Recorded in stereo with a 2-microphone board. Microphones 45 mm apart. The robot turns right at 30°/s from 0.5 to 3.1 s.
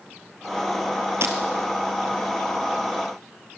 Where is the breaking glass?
70° right (ahead or behind), 2.5 m; by 1.4 s 65° right (ahead or behind), 2.5 m.